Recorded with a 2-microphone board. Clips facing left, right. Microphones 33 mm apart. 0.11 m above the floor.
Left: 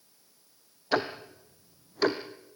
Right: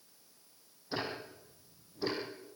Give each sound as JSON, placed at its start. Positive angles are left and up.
{"t": 0.9, "sound": "ticking", "side_deg": 75, "distance_m": 2.5}